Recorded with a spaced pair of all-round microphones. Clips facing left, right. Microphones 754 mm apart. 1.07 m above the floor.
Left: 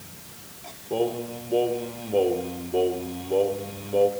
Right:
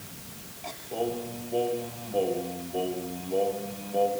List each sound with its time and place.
0.9 s singing: 80° left, 2.5 m